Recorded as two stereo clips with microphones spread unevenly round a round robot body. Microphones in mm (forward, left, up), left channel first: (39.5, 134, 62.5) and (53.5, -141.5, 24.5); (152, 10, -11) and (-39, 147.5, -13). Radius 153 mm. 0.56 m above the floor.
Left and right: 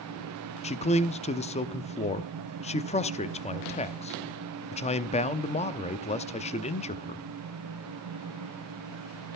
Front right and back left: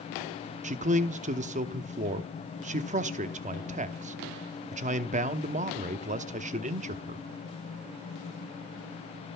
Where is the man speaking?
150° left, 0.7 m.